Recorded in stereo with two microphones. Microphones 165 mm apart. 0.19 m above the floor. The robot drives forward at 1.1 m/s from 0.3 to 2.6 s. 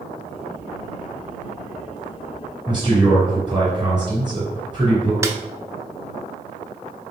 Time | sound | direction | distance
2.7 | a man speaking | 30° right (ahead or behind) | 1.8 m
5.2 | a snare drum | 20° right (ahead or behind) | 0.5 m